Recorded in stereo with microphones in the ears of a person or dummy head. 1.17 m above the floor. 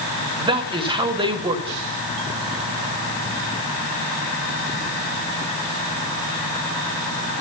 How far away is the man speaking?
About 1.8 m.